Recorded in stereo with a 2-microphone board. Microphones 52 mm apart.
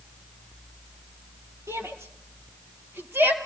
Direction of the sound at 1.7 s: 65° right (ahead or behind).